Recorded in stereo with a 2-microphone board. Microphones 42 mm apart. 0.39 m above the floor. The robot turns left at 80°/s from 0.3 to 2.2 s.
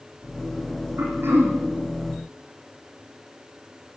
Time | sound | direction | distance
1.0 | throat clearing | 85° right | 8.5 m